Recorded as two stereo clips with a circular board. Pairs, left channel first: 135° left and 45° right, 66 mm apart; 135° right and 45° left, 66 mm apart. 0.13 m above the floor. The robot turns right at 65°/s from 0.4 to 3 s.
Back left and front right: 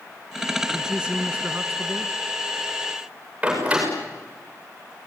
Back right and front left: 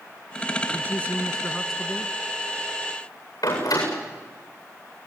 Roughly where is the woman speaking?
Behind right.